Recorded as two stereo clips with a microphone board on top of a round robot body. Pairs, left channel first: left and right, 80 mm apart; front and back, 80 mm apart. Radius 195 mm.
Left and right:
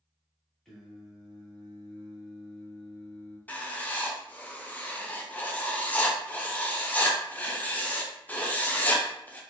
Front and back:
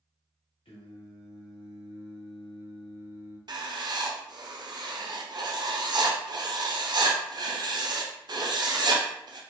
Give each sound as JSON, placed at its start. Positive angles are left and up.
{"t": 0.7, "sound": "singing", "azimuth_deg": 5, "distance_m": 0.7}
{"t": 3.5, "sound": "writing", "azimuth_deg": 160, "distance_m": 0.6}